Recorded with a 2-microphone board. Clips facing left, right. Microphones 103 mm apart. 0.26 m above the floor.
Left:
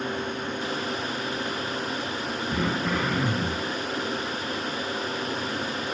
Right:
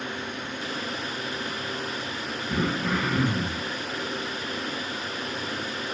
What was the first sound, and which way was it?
Throat clearing, 75° right (ahead or behind).